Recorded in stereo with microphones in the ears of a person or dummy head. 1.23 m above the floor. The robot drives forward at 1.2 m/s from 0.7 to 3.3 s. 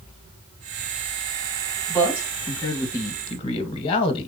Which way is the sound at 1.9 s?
10° left (ahead or behind).